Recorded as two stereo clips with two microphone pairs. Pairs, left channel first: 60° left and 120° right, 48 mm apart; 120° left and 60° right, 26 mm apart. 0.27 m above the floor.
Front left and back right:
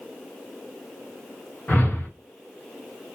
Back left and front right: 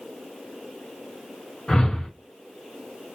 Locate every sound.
1.7 s a whoosh: 95° left, 2.5 m